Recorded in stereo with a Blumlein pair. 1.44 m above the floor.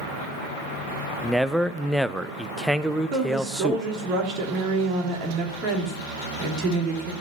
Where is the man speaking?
Straight ahead, 0.5 m.